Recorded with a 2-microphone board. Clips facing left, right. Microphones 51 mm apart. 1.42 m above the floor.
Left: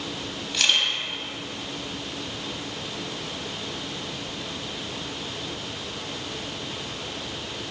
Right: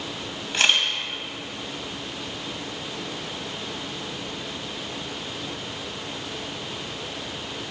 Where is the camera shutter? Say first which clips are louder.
Right 2 dB; 30° right (ahead or behind), 2 m.